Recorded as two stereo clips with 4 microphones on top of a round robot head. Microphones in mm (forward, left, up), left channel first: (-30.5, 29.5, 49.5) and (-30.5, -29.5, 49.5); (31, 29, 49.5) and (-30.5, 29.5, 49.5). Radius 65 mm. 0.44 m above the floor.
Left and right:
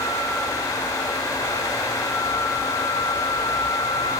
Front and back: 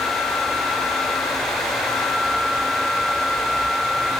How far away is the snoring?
No snoring in this recording.